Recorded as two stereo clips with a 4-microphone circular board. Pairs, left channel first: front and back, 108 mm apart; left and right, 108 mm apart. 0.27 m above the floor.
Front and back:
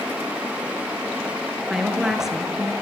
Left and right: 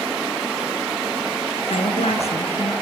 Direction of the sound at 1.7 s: 95° left.